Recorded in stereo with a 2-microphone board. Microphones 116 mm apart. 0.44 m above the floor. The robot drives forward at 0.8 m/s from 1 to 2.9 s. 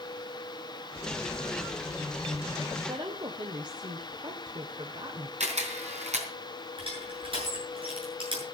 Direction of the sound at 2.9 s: 40° right (ahead or behind).